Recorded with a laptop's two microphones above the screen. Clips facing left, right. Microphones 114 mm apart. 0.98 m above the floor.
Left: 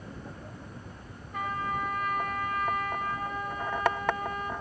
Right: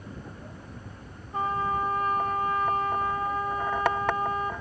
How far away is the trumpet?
About 1.3 m.